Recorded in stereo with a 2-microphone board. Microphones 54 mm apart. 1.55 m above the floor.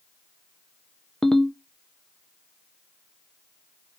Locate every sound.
1.2 s a ringtone: 5° left (ahead or behind), 0.5 m